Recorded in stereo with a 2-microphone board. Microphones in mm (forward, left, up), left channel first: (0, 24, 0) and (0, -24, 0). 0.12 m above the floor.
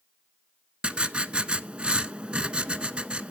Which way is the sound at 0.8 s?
25° right (ahead or behind).